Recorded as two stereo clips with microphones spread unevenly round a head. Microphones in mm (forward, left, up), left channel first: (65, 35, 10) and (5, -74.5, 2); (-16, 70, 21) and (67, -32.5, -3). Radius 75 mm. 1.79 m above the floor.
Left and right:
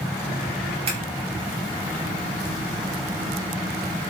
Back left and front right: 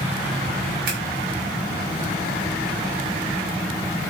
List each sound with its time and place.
0.9 s scissors: 80° right, 5.5 m